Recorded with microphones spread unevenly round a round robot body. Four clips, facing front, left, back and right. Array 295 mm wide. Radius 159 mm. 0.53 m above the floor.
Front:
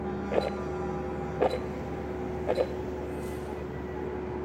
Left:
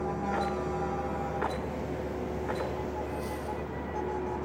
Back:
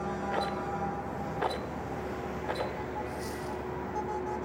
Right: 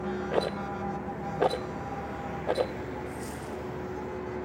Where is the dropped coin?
125° right, 8 m.